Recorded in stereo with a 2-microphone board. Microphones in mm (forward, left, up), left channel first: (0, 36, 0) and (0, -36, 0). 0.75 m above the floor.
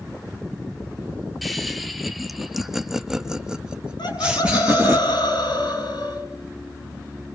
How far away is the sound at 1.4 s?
About 2 m.